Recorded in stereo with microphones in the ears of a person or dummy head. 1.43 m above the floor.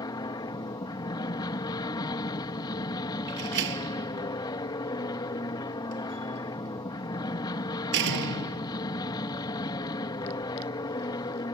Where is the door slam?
65° right (ahead or behind).